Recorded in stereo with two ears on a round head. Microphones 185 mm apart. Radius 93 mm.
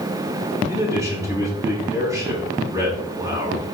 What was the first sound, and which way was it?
A man speaking, 15° right (ahead or behind).